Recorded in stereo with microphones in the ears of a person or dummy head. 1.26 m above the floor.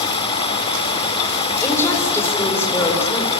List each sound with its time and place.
0.0 s running water: 35° left (ahead or behind), 2.5 m
1.6 s a woman speaking: 15° left (ahead or behind), 5.5 m